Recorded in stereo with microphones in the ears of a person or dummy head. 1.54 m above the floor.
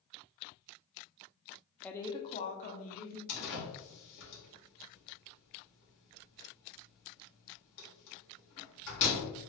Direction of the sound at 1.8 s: 5° left (ahead or behind).